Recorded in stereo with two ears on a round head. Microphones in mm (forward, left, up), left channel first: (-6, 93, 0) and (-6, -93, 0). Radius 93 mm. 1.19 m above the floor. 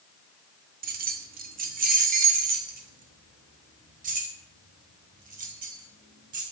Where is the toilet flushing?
I don't hear a toilet flushing.